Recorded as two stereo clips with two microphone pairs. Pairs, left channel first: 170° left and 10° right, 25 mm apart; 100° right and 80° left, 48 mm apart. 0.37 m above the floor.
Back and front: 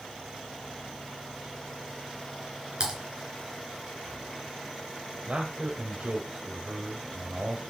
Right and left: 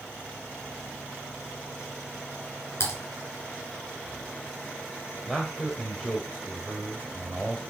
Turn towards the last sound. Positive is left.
turn(degrees=-15)